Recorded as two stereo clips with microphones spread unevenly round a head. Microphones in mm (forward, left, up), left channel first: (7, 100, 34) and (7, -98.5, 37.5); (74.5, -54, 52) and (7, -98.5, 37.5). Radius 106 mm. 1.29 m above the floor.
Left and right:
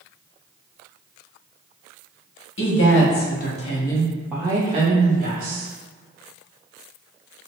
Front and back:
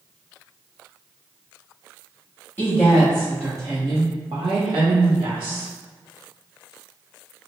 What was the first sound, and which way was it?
A woman speaking, 115° left.